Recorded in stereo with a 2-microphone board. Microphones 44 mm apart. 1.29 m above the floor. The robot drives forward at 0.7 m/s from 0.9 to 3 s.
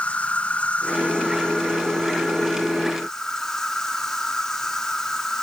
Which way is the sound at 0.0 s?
35° left (ahead or behind).